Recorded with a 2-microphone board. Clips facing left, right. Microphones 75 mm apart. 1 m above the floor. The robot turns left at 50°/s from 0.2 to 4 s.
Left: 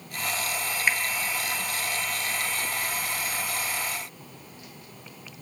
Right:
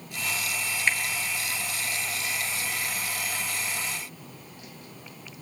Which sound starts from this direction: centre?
A finger snap, at 0.9 s.